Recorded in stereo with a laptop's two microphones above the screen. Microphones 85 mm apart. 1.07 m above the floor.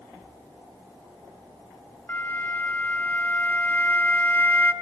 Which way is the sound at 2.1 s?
20° left (ahead or behind).